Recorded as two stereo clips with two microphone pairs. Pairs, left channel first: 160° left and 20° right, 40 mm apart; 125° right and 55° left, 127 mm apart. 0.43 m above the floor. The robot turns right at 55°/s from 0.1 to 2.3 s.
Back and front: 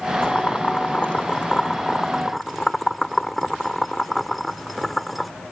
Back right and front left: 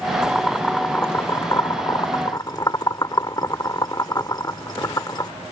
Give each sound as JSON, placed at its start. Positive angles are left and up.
{"t": 0.2, "sound": "boiling", "azimuth_deg": 135}